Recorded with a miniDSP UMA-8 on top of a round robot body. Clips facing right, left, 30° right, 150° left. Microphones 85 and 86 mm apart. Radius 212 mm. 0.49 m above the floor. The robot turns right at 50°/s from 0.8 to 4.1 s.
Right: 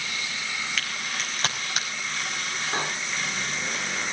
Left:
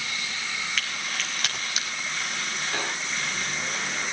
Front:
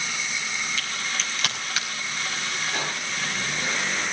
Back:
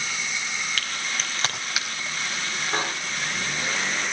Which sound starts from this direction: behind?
A crack, at 0.8 s.